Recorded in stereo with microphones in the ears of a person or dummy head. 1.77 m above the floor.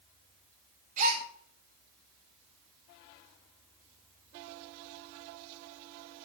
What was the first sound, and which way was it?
A gasp, 45° right (ahead or behind).